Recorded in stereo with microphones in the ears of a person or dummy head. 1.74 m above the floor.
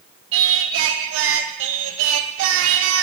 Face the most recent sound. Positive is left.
turn(degrees=-75)  # may be behind; listen again after turning